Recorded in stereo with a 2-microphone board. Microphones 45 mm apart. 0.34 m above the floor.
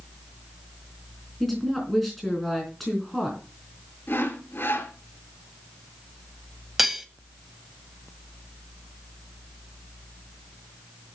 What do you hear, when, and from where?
1.4 s a woman speaking: centre (ahead or behind), 3.5 m
4.1 s sawing: 50° left (ahead or behind), 2 m
6.8 s cutlery clinking: 5° right (ahead or behind), 1.1 m